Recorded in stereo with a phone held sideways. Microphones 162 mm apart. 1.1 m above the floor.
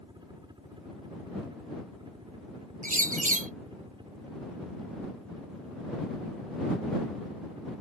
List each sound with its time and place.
0.0 s a helicopter: 30° right (ahead or behind); by 7.8 s 35° right (ahead or behind)
2.8 s a bird: 55° right (ahead or behind)